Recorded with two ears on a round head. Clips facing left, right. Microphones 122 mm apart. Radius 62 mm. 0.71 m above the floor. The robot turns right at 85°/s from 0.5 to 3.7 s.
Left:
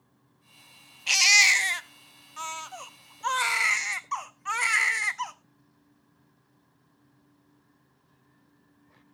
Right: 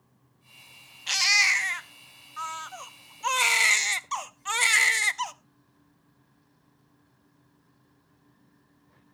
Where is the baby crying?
20° left, 0.7 m; by 5.3 s 115° right, 0.7 m.